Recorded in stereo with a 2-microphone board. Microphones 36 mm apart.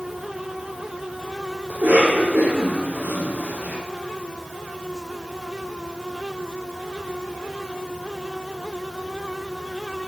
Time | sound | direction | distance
1.7 | a cough | 65° right (ahead or behind) | 6.5 m